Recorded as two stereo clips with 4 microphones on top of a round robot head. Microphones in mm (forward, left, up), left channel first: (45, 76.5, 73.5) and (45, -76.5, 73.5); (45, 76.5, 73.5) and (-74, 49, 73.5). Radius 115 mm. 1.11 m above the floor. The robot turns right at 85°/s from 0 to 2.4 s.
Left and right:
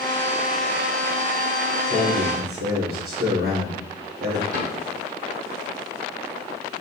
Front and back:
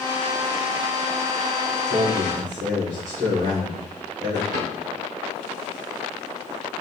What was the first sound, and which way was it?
A man speaking, 145° right.